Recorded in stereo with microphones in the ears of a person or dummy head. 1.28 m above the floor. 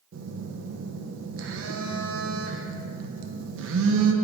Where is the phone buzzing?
70° right (ahead or behind), 0.8 m.